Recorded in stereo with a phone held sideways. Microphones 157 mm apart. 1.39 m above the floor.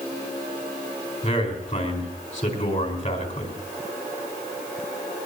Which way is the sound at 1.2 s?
50° left (ahead or behind).